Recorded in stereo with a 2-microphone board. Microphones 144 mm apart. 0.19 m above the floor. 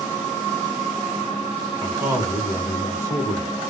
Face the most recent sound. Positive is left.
turn(degrees=-15)  # may be behind; listen again after turning